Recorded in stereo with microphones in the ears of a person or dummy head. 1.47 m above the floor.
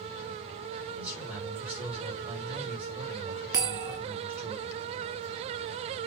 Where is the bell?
15° right (ahead or behind), 1.4 m.